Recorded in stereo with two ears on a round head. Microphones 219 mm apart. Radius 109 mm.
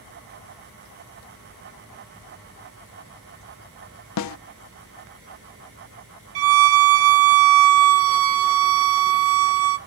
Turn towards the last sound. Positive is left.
turn(degrees=-60)  # may be behind; listen again after turning